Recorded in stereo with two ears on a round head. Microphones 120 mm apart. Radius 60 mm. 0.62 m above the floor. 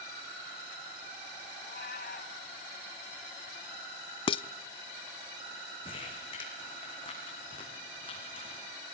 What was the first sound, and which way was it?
A cat meowing, 75° left (ahead or behind).